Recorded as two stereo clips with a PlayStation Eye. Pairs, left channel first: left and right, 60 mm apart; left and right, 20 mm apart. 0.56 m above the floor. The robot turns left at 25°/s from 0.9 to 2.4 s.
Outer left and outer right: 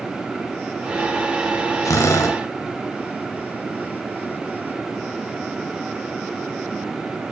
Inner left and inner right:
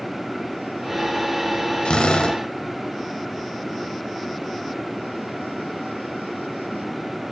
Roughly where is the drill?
Left.